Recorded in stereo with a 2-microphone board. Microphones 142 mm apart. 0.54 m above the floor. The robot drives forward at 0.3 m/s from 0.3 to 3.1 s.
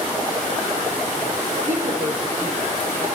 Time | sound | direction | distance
1.7 | a woman speaking | 80° right | 9 m